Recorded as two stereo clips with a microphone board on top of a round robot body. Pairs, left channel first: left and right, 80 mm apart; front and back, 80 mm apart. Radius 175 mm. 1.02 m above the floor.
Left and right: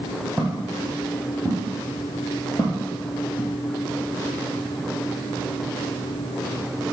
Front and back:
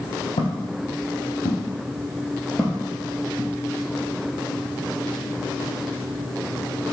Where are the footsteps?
5° right, 2.0 m; by 3.5 s 160° left, 1.3 m.